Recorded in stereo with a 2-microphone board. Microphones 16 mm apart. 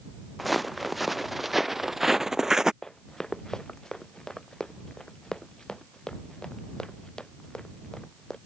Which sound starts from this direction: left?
Running footsteps, at 2.8 s.